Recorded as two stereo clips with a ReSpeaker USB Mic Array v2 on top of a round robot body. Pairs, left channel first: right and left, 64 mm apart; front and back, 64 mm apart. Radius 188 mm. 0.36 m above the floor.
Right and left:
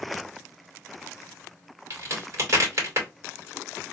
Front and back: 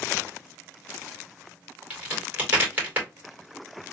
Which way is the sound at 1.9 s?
120° left.